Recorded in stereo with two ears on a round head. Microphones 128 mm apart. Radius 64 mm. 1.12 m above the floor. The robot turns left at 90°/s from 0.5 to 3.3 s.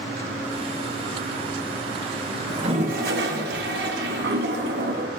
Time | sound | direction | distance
2.5 | a toilet flushing | 25° right | 1.1 m